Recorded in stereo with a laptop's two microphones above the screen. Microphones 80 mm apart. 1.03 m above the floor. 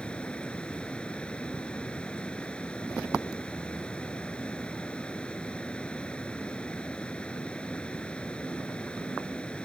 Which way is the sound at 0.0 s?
15° left (ahead or behind).